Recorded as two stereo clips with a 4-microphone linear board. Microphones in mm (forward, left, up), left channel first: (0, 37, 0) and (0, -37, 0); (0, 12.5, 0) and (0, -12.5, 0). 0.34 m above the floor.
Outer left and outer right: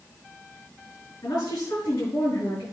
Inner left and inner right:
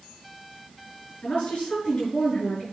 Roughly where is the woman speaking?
Left.